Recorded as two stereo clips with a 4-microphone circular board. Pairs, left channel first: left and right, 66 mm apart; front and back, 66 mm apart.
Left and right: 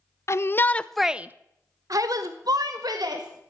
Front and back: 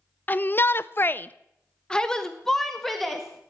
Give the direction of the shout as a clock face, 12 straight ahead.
10 o'clock.